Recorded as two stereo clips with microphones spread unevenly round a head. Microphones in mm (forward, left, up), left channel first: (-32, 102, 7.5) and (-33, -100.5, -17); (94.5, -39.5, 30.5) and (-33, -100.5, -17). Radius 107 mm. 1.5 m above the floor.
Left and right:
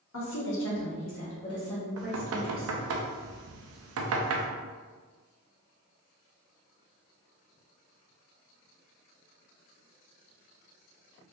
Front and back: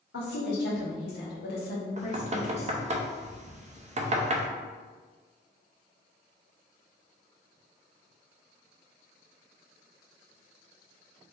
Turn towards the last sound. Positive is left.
turn(degrees=-105)